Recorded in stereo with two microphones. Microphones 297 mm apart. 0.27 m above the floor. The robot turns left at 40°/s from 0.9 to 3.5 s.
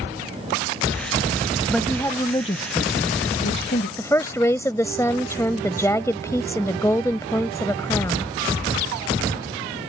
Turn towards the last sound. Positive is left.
turn(degrees=10)  # may be behind; listen again after turning